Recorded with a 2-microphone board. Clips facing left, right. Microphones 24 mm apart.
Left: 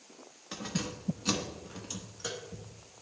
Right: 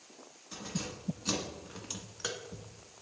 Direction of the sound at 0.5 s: 45° left (ahead or behind).